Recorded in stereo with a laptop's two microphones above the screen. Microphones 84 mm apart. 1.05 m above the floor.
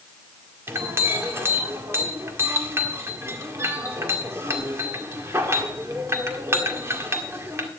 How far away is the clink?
About 1.7 m.